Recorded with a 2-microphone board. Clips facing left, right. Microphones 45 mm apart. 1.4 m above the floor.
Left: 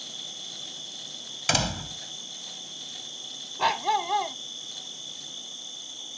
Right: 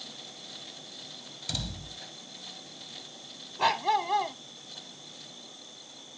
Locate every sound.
0.0 s an insect: 60° left (ahead or behind)
1.5 s a door slam: 65° left (ahead or behind)
3.6 s a dog barking: 5° left (ahead or behind)